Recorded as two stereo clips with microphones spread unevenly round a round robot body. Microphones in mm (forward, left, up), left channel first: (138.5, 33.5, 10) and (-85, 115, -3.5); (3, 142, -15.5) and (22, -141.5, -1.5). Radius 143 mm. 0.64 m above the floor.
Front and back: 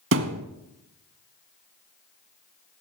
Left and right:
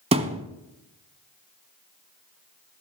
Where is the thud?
155° right, 0.9 m.